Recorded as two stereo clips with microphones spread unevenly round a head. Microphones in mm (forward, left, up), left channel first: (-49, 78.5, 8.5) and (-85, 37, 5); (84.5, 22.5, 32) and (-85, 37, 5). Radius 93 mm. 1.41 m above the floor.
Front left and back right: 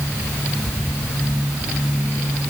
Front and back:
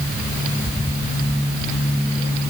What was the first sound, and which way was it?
Only background noise.